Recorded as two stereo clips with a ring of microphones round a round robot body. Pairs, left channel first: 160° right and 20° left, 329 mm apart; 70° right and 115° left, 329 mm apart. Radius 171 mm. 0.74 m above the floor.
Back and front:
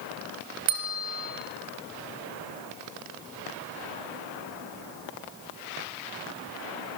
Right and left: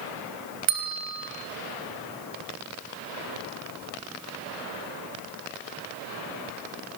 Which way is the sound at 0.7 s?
65° left.